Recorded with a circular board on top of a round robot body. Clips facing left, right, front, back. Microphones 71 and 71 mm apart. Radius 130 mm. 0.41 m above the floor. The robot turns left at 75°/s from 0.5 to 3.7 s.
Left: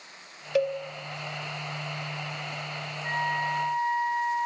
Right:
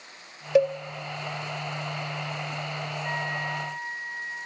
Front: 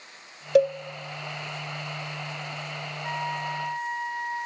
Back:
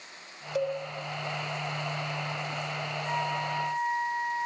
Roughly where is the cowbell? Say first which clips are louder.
Right 5 dB, front 10 dB; ahead right.